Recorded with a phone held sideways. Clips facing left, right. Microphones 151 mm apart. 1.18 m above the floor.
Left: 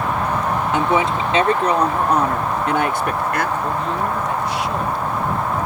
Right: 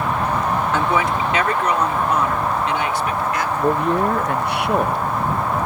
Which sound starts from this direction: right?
A man speaking, at 3.6 s.